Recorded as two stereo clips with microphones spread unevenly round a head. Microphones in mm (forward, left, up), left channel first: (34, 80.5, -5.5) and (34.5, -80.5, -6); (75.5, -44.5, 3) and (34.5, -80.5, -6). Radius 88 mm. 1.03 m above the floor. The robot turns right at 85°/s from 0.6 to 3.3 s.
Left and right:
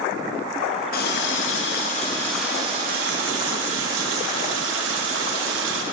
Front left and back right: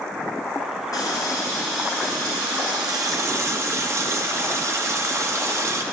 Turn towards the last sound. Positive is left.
turn(degrees=-100)